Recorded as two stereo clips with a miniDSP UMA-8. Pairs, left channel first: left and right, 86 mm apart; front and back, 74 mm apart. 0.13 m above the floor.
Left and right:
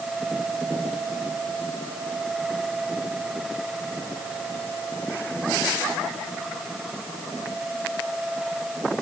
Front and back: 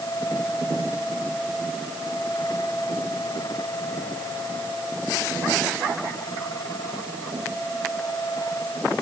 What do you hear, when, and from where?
Only background noise.